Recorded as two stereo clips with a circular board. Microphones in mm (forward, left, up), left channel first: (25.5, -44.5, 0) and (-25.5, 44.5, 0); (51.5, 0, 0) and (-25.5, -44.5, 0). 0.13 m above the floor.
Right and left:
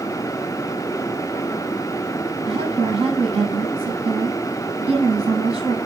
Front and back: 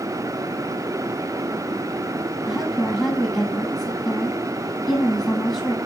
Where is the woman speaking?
120° left, 5 m.